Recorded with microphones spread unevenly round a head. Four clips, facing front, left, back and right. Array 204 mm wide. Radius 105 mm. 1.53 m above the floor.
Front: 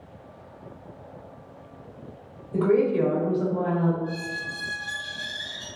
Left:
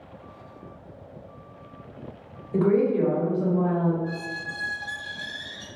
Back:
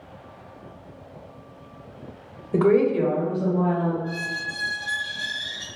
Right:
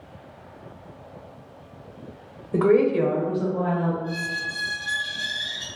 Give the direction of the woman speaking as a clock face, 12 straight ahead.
5 o'clock.